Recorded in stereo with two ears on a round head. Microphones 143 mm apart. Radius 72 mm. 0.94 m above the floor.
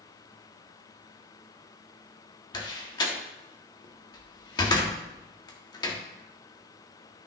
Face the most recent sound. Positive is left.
turn(degrees=25)  # may be behind; listen again after turning